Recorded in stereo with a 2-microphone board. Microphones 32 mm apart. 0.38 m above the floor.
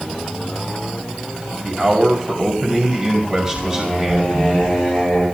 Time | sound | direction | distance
1.6 | a man speaking | 20° right (ahead or behind) | 2 m
3.5 | singing | 15° left (ahead or behind) | 9 m